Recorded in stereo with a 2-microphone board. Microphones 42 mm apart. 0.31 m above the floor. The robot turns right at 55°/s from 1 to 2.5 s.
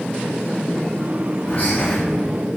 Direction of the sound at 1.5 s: 50° left (ahead or behind).